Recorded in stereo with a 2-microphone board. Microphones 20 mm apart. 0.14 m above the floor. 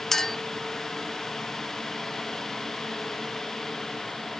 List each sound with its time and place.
0.1 s a clink: 25° left (ahead or behind), 1.4 m